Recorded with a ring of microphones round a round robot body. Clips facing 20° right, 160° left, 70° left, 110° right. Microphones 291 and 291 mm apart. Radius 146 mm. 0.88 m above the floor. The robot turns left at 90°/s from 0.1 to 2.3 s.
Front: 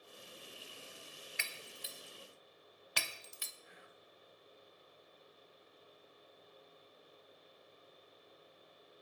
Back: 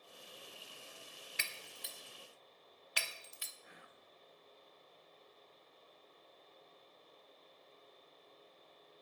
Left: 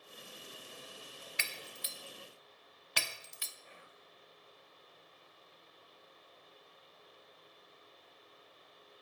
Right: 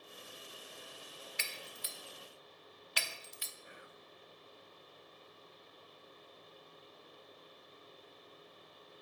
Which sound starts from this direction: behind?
Whispering, at 3.6 s.